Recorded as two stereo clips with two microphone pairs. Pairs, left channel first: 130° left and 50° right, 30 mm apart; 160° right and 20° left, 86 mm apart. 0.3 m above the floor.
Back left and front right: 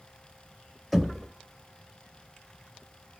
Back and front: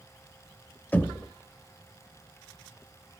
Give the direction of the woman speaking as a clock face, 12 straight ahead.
No woman speaking in this recording.